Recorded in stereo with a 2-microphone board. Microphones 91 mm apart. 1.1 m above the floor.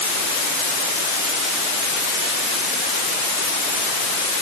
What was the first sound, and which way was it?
Only background noise.